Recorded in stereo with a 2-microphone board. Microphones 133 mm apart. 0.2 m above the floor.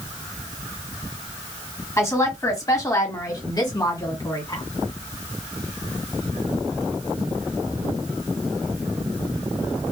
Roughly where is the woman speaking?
Left.